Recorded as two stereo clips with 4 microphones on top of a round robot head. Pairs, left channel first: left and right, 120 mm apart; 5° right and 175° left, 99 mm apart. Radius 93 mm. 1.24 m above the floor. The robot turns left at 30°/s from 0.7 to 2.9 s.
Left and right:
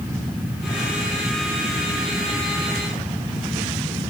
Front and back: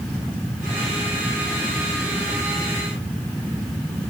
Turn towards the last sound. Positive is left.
No sound to turn to.